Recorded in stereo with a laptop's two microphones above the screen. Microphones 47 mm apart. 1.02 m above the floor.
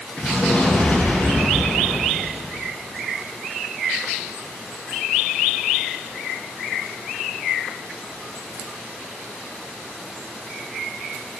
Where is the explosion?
35° left (ahead or behind), 6.5 m.